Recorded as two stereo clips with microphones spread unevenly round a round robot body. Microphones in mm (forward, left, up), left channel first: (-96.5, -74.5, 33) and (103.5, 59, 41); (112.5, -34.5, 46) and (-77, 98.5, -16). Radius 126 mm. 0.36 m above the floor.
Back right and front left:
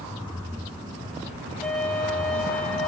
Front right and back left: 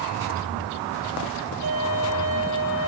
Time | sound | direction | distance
1.6 | a violin | 130° left | 7.5 m